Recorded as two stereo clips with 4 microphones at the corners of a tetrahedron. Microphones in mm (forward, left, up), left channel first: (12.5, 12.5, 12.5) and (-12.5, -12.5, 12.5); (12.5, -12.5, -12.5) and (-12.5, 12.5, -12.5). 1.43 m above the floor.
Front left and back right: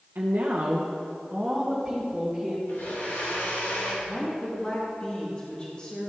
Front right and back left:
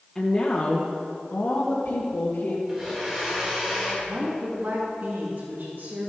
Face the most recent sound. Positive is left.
turn(degrees=110)